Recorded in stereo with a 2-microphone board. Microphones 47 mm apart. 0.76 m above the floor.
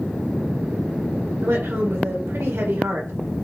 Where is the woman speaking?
75° right (ahead or behind), 2.5 m.